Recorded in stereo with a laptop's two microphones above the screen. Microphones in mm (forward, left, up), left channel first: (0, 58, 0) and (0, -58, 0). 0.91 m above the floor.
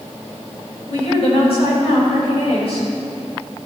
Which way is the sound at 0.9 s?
60° left (ahead or behind).